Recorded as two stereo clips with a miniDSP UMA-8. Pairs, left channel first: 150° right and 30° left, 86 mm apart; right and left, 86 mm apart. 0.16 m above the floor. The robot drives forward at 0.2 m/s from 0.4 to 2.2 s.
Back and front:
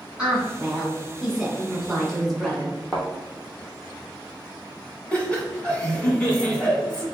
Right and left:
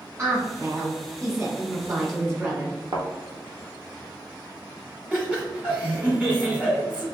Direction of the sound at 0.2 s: 95° left.